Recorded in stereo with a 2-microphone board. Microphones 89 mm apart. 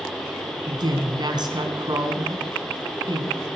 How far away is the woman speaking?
About 3 m.